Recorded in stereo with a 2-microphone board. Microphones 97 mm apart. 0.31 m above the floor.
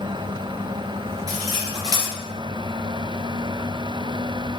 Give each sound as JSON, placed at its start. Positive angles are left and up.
{"t": 1.3, "sound": "cutlery clinking", "side_deg": -40, "distance_m": 3.0}